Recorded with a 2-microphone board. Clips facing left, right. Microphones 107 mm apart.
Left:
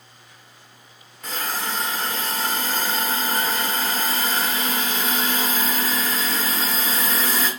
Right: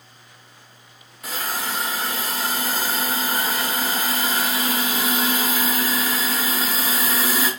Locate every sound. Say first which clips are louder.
1.2 s a hiss: even; 10° right (ahead or behind), 0.9 m